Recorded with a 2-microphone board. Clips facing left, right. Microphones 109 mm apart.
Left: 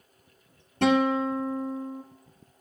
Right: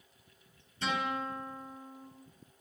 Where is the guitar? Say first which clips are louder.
Left 12 dB; 60° left (ahead or behind), 1.7 m.